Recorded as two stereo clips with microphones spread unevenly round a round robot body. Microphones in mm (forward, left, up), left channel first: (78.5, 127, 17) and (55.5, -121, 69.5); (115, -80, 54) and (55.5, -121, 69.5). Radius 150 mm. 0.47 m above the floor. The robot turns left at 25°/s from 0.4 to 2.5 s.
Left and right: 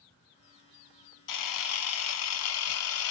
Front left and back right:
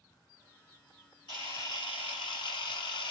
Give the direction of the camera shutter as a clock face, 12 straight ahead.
9 o'clock.